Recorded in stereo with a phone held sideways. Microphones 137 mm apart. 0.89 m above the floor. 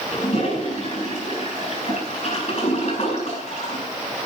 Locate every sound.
0.1 s a toilet flushing: 55° left (ahead or behind), 8 m